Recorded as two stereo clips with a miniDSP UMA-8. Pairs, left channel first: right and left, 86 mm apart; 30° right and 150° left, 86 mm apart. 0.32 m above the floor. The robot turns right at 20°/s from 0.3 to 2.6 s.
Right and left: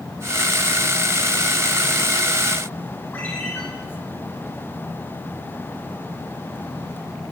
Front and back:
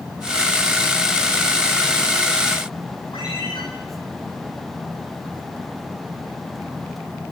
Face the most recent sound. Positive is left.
turn(degrees=-25)